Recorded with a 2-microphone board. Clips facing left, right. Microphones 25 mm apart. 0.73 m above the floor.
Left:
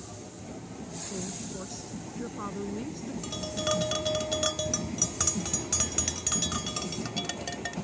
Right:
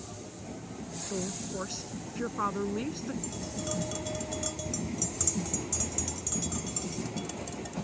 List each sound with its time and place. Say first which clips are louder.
1.1 s a woman speaking: right 4 dB; 40° right (ahead or behind)
3.2 s tapping: left 6 dB; 70° left (ahead or behind)